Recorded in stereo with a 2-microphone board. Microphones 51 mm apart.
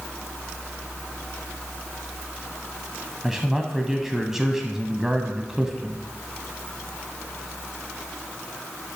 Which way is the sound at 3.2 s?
10° right (ahead or behind).